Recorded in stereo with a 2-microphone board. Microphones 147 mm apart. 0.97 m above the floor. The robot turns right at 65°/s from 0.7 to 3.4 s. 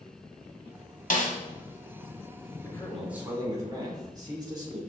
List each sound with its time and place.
1.1 s a snare drum: 65° left (ahead or behind), 1.5 m; by 1.3 s 60° left (ahead or behind), 1.5 m
2.6 s a man speaking: 155° left, 2.5 m; by 4.8 s 155° right, 2.5 m